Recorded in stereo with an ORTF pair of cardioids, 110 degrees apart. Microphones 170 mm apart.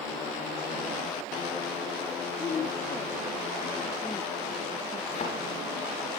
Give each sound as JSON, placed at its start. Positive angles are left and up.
{"t": 2.4, "sound": "a woman speaking", "azimuth_deg": 35, "distance_m": 2.5}
{"t": 5.1, "sound": "a thud", "azimuth_deg": 40, "distance_m": 8.5}